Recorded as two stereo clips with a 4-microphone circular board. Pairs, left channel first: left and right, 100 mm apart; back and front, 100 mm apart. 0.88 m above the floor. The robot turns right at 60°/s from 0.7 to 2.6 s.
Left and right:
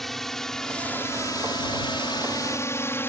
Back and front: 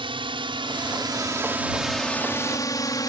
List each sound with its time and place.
0.0 s a drone: 5° left; by 3.1 s 150° left